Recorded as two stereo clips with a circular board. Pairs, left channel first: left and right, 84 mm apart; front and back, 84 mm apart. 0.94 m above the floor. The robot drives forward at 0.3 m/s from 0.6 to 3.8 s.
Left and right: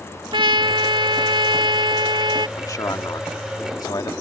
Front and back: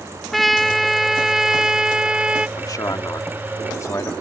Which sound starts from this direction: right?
A trumpet, at 0.3 s.